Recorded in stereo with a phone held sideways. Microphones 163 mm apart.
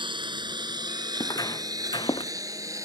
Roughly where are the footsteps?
Left.